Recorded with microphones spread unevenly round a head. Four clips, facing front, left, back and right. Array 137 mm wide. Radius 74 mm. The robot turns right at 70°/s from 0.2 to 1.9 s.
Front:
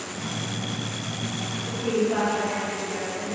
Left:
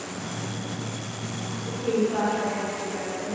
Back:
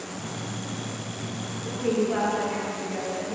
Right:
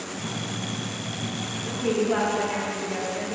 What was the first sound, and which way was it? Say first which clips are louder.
A woman speaking: right 1 dB, even; 100° right.